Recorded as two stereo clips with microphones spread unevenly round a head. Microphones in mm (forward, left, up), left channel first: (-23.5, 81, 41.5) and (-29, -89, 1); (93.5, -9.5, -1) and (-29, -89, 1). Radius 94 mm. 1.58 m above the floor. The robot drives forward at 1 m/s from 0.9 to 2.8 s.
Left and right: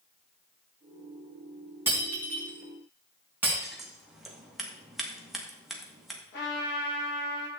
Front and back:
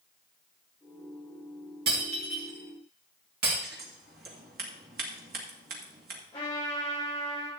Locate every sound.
1.9 s breaking glass: 175° right, 3.5 m
3.6 s scissors: 175° left, 2 m
6.3 s a trumpet: 105° left, 6.5 m